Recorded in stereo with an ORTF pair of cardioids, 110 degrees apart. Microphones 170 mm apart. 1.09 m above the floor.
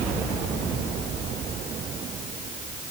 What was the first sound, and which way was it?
Only background noise.